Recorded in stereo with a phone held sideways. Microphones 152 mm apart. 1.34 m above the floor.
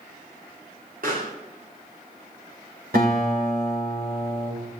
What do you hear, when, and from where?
1.0 s a pop: 65° right (ahead or behind), 3.5 m
2.9 s a guitar: 85° right, 6 m